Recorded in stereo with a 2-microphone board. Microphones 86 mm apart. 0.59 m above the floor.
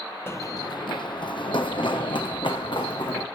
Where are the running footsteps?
25° left (ahead or behind), 0.8 m; by 3.2 s 65° left (ahead or behind), 3.5 m.